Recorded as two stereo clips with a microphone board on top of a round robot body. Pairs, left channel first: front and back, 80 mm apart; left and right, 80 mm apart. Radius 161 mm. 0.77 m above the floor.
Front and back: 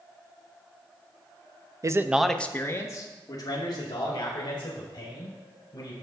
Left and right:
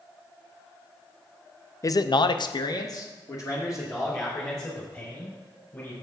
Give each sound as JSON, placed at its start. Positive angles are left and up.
{"t": 1.8, "sound": "a man speaking", "azimuth_deg": 135, "distance_m": 0.7}